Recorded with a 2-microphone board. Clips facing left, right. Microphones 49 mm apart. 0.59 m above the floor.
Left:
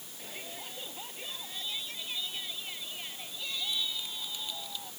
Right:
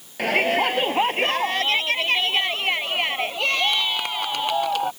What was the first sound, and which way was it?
A shout, 70° right (ahead or behind).